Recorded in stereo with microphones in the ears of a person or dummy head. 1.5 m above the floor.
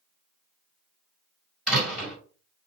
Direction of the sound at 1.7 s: 5° right (ahead or behind).